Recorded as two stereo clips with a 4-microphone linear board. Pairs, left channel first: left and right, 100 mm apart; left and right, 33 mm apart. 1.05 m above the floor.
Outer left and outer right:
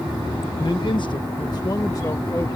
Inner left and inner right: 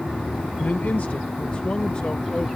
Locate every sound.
0.6 s a man speaking: 45° left (ahead or behind); by 2.5 s 30° left (ahead or behind)